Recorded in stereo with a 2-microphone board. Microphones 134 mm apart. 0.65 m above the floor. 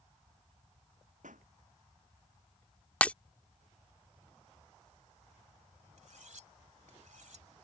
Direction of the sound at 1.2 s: 90° right.